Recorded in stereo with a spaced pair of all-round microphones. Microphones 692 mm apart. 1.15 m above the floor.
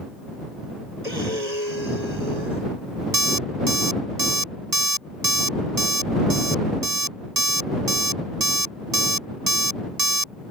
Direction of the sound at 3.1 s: 70° right (ahead or behind).